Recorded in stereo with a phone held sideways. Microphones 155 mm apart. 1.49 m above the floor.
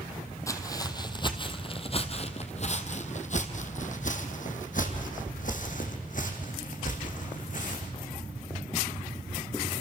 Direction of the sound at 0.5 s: 20° left (ahead or behind).